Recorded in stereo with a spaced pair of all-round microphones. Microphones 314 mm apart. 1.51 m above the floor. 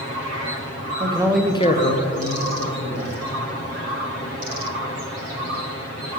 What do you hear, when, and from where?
1.0 s a man speaking: 20° right (ahead or behind), 0.7 m; by 3.1 s 85° left, 1.3 m